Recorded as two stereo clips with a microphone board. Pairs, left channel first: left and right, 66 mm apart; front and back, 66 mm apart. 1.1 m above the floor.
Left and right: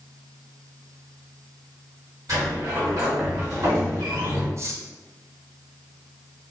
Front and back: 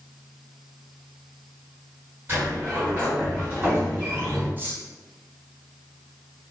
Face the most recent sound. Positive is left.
turn(degrees=-125)